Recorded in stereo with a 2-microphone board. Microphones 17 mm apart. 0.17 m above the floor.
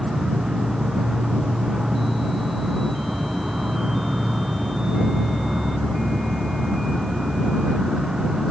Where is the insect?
55° right (ahead or behind).